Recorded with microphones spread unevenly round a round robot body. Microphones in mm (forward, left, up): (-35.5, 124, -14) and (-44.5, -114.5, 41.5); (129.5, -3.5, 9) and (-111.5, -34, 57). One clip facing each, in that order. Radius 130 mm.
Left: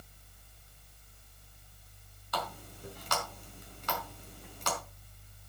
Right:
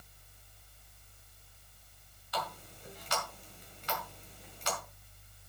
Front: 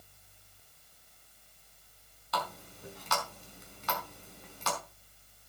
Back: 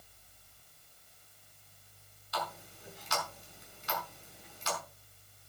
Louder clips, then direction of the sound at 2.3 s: Left 1 dB, front 2 dB; 40° left.